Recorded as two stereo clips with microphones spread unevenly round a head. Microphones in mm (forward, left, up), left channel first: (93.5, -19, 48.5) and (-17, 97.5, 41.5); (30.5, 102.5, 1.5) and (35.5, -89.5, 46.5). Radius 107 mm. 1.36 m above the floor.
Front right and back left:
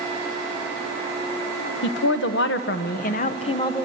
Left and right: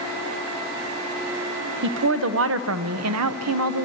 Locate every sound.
1.8 s a woman speaking: 60° right, 1.1 m; by 3.9 s 125° right, 0.8 m